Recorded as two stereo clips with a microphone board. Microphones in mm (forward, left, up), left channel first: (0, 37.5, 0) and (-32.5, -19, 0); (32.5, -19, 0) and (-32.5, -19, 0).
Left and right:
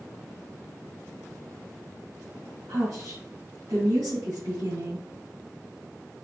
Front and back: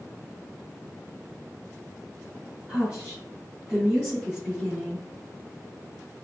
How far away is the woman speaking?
About 2.5 m.